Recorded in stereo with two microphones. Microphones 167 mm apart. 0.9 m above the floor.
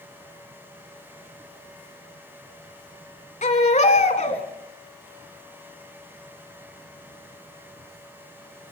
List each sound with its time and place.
3.4 s a baby crying: 45° left (ahead or behind), 2.5 m